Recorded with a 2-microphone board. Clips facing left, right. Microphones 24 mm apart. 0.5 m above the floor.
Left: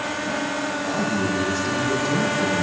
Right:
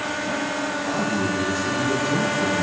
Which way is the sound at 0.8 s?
30° left (ahead or behind).